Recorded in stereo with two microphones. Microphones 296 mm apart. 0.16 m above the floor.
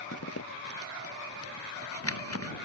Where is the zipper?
50° left (ahead or behind).